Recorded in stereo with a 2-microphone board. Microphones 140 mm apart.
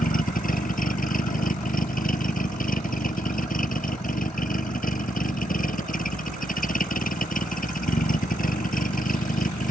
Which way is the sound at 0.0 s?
85° left.